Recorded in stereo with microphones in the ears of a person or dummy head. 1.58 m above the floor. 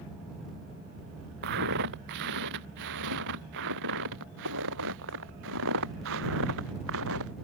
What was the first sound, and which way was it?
Footsteps, 65° right (ahead or behind).